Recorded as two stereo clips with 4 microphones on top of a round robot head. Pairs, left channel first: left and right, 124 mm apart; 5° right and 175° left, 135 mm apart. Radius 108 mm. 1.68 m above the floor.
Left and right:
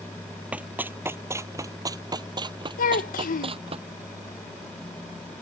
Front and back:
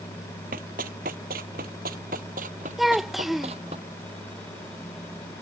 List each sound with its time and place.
0.5 s running footsteps: 165° right; by 3.8 s 125° right
2.8 s a child speaking: 85° left